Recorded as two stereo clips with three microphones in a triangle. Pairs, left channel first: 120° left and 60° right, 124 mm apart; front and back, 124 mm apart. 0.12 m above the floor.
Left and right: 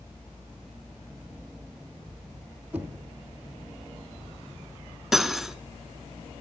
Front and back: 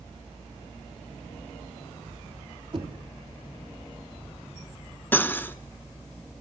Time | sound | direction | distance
2.7 | knocking | 140° right | 2.5 m
5.1 | cutlery clinking | 20° left | 0.7 m